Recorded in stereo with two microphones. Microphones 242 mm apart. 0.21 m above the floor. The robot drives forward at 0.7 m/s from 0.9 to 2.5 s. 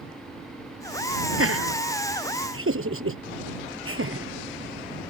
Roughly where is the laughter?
Right.